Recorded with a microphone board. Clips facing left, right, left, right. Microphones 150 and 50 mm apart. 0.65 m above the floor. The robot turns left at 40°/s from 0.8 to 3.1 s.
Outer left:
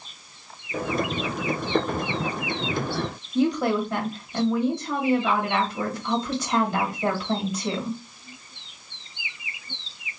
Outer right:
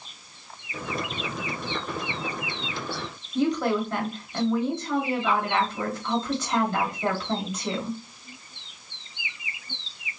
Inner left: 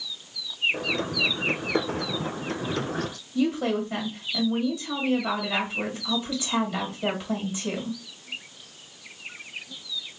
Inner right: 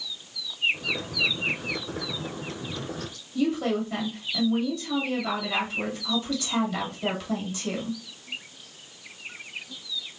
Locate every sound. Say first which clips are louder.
3.4 s a woman speaking: outer left 2 dB, inner left 1 dB; 10° left (ahead or behind), 1.4 m